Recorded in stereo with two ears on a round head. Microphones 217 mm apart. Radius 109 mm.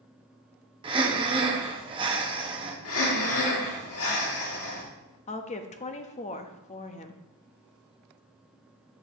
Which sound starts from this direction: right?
Breathing, at 0.8 s.